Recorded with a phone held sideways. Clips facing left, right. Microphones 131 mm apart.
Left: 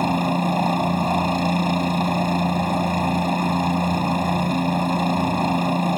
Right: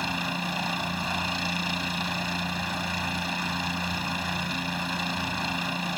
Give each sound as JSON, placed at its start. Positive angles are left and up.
{"t": 0.0, "sound": "a helicopter", "side_deg": 45}